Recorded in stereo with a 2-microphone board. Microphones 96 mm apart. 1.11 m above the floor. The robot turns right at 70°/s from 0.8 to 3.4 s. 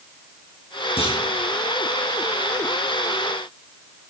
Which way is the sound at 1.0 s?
85° left.